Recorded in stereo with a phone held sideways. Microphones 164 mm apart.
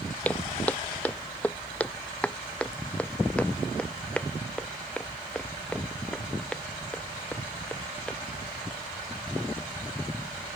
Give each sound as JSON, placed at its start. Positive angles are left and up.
{"t": 0.2, "sound": "footsteps", "side_deg": 10}